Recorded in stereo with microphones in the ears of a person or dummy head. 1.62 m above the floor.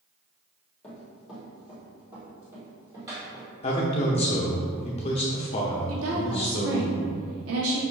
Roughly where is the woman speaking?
Right.